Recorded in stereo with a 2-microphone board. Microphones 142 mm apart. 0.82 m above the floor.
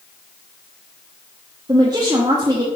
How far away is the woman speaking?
About 1.0 m.